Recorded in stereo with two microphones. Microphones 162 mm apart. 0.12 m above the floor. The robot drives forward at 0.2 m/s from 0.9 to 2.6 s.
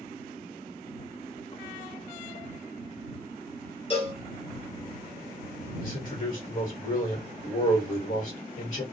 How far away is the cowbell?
About 0.8 m.